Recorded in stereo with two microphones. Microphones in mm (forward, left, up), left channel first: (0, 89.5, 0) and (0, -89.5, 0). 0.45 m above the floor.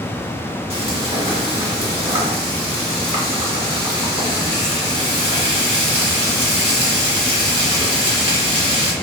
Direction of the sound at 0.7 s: 35° right (ahead or behind).